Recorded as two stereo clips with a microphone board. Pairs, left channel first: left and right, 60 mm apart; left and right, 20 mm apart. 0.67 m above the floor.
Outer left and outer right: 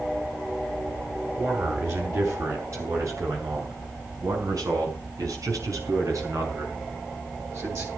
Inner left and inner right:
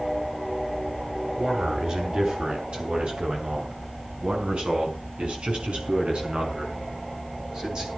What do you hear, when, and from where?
1.4 s a man speaking: 45° right (ahead or behind), 7 m